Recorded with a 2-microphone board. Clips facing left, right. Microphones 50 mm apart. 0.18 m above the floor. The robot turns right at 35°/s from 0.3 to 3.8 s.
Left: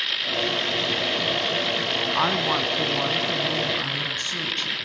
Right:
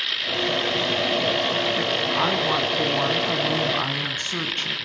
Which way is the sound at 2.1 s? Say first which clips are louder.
Even; 165° left.